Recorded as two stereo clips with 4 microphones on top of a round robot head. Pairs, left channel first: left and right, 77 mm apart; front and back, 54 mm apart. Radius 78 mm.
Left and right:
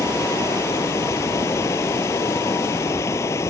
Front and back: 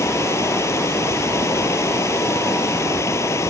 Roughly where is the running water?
Ahead left.